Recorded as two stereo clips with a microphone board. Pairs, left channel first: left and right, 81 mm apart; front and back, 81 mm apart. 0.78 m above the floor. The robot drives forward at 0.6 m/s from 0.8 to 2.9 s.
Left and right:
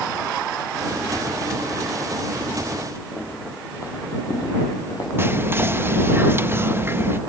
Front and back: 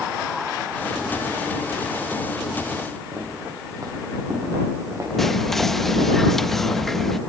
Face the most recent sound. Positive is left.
turn(degrees=-85)